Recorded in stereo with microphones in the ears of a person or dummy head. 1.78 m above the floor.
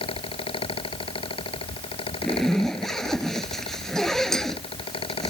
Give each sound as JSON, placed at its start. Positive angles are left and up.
{"t": 0.0, "sound": "a fan", "side_deg": 30}
{"t": 2.2, "sound": "a zipper", "side_deg": 5}